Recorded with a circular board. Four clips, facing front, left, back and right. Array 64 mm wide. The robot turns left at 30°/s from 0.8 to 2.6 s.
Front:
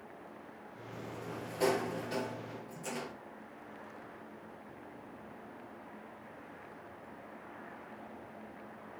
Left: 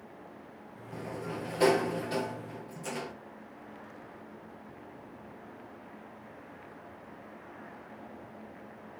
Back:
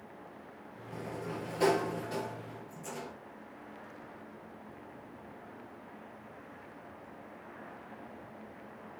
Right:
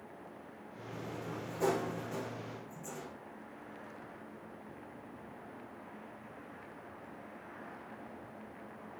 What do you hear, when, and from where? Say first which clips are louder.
0.9 s a sliding door: left 5 dB, back 4 dB; 120° left, 1.0 m; by 3.1 s 70° left, 1.0 m